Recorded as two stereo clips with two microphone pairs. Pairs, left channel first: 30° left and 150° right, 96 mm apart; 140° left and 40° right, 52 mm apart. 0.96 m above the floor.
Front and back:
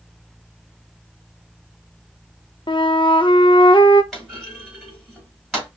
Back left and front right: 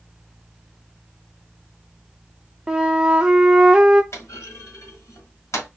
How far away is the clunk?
About 2.5 m.